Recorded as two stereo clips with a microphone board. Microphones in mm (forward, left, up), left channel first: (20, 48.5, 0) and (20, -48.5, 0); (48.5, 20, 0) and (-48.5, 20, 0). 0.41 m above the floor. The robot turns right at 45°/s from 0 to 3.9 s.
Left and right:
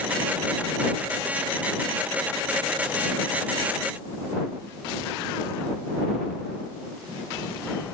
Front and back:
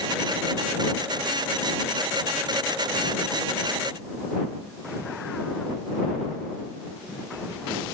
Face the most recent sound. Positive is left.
No sound to turn to.